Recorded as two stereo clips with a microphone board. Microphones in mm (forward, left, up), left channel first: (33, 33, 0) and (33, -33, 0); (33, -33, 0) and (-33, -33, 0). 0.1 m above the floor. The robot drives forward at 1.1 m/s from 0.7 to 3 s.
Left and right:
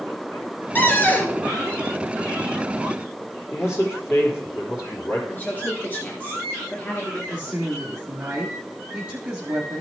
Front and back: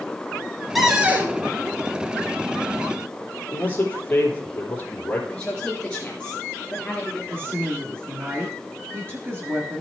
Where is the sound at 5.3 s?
60° left, 1.9 m.